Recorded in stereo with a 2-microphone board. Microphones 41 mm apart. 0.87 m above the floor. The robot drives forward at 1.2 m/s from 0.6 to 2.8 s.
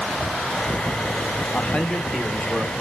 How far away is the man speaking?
About 0.9 m.